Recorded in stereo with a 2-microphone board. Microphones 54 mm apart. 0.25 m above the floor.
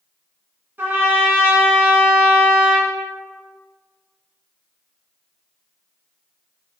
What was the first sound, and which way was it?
A trumpet, 40° right (ahead or behind).